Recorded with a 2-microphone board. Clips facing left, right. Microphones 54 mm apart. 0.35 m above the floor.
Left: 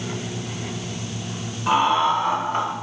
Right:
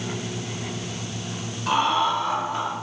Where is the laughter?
15° left (ahead or behind), 1.4 m; by 2.7 s 50° left (ahead or behind), 1.9 m.